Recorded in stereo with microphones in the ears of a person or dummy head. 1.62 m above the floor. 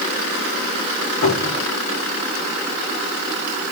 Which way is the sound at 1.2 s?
65° left (ahead or behind).